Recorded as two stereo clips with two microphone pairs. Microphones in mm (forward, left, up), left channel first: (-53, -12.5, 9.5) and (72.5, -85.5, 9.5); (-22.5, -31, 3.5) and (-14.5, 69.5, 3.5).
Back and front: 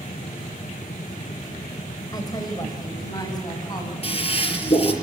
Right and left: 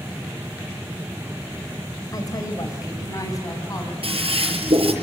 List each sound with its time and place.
2.1 s a woman speaking: 145° right, 4.5 m; by 3.9 s 150° right, 7.5 m
4.0 s a toilet flushing: 105° left, 5.5 m